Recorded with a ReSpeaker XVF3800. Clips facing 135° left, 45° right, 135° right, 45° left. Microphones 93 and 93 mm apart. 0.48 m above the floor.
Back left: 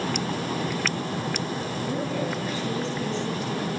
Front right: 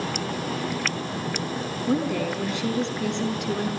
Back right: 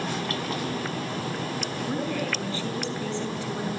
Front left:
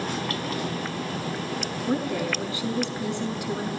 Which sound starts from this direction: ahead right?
A woman speaking, at 1.9 s.